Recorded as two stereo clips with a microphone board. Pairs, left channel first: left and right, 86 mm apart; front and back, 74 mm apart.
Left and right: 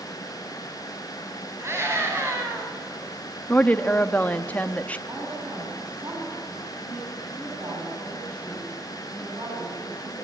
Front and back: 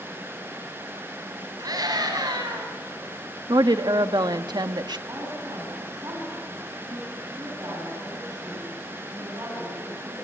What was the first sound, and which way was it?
A scream, 150° right.